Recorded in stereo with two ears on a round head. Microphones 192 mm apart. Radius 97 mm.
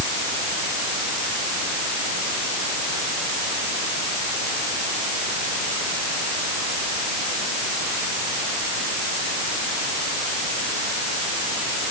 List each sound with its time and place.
Only background noise.